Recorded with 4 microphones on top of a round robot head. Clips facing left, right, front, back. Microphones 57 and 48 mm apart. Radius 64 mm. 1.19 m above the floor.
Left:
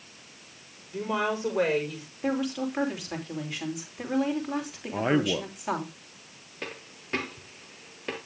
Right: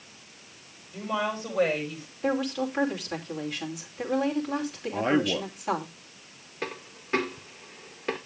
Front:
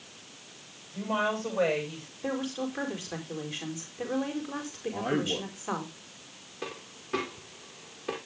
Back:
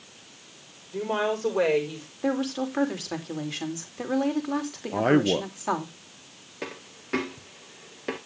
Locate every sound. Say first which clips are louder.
0.9 s a woman speaking: left 1 dB, back 3 dB; 155° left, 5.5 m
2.2 s a woman speaking: right 1 dB, back 5 dB; 170° left, 3 m
4.9 s a man speaking: even, back 9 dB; 175° left, 0.7 m
6.6 s a dropped coin: right 4 dB, back 2 dB; 165° right, 1.4 m